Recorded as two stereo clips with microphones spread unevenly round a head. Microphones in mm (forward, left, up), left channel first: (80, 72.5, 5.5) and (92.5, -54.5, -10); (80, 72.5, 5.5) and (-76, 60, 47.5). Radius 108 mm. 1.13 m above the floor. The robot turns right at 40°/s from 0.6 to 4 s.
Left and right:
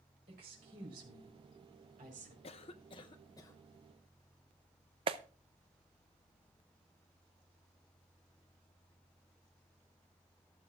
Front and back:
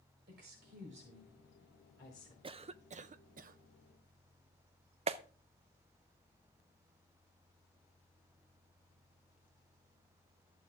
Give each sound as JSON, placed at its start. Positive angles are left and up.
{"t": 0.3, "sound": "a woman speaking", "azimuth_deg": -130, "distance_m": 4.5}
{"t": 2.4, "sound": "a cough", "azimuth_deg": 120, "distance_m": 0.5}
{"t": 5.1, "sound": "a clap", "azimuth_deg": -115, "distance_m": 0.6}